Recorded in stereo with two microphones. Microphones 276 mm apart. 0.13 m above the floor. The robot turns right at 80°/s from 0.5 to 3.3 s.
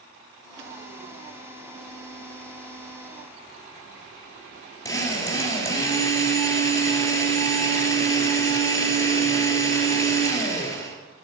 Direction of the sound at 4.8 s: 10° left (ahead or behind).